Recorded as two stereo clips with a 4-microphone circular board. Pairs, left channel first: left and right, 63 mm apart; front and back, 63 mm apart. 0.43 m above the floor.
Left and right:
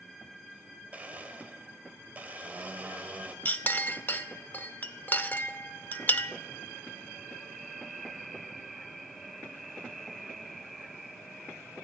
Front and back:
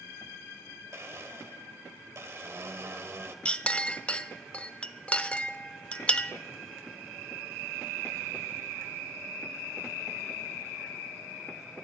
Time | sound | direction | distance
0.9 | a blender | 150° right | 1.2 m
3.5 | a clink | 55° left | 0.5 m